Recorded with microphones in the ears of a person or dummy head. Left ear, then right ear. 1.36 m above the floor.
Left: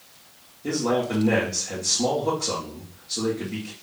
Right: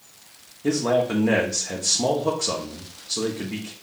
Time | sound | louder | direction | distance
0.6 | a man speaking | right 3 dB | 65° right (ahead or behind) | 0.9 m